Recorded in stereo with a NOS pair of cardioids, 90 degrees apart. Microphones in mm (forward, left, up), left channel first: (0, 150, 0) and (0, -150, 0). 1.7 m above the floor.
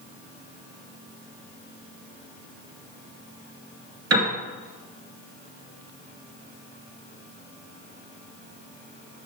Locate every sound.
4.1 s a piano: 50° right, 2.5 m